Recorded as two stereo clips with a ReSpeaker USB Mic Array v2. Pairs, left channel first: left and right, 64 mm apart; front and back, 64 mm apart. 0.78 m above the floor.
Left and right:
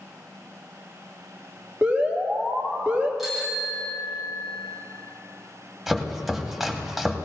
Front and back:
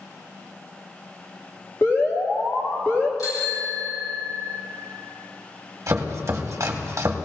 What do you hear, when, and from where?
1.8 s an alarm: 30° right, 1.9 m
3.2 s a bicycle bell: 5° right, 3.5 m
5.9 s chopping: straight behind, 1.3 m